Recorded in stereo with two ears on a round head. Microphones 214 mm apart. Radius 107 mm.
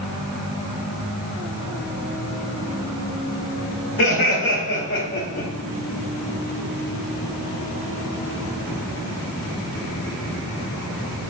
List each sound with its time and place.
4.0 s laughter: 45° left (ahead or behind), 2.5 m; by 5.5 s 30° left (ahead or behind), 3 m